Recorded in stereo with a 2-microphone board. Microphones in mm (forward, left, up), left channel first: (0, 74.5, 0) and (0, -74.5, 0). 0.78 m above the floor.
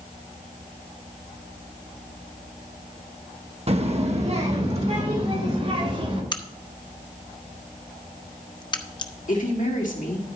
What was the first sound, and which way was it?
A child speaking, 45° right (ahead or behind).